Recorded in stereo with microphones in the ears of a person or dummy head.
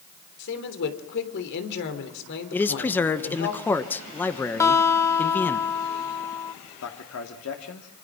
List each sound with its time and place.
0.4 s a woman speaking: 65° left (ahead or behind), 3.5 m
2.5 s a man speaking: 10° left (ahead or behind), 1.3 m
4.6 s a guitar: 15° left (ahead or behind), 1.6 m
6.8 s a man speaking: 80° left, 2.5 m